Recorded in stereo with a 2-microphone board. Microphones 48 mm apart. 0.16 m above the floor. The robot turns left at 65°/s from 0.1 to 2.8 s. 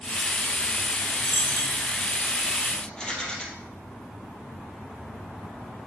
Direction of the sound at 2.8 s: 15° left (ahead or behind).